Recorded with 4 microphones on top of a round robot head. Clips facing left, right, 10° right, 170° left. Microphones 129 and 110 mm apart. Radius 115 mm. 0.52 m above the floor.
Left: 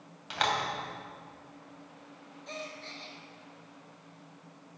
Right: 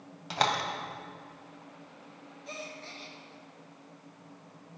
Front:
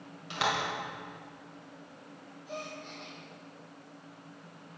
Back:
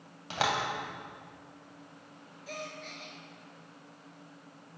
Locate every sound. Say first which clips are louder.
0.3 s a door slam: right 2 dB, back 1 dB; 140° right, 2.5 m
2.5 s a gasp: left 1 dB, front 1 dB; 170° right, 2 m